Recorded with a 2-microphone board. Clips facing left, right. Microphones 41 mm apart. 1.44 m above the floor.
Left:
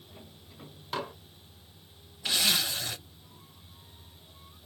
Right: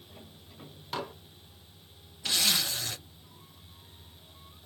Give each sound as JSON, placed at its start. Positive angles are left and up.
{"t": 0.9, "sound": "dishes clattering", "side_deg": 0, "distance_m": 0.8}
{"t": 2.2, "sound": "a zipper", "side_deg": 5, "distance_m": 1.4}